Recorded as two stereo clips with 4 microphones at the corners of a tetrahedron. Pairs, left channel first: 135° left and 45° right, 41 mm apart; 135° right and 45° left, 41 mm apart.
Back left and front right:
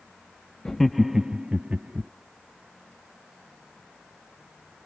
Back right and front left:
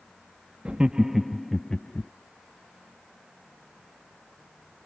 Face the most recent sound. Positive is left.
turn(degrees=-75)